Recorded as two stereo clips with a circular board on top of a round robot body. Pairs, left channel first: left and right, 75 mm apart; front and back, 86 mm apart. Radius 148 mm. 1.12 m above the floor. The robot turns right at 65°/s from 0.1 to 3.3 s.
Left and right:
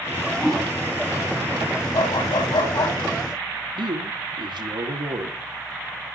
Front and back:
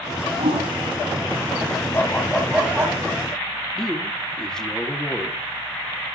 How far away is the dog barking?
About 9.5 m.